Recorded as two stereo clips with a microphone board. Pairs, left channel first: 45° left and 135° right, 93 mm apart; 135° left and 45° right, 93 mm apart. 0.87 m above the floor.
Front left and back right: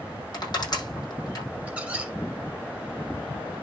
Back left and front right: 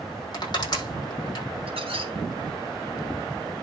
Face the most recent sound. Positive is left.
turn(degrees=-60)